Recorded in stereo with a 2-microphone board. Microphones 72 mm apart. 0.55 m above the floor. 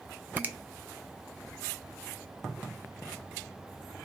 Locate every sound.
0.4 s a finger snap: 25° right (ahead or behind), 0.5 m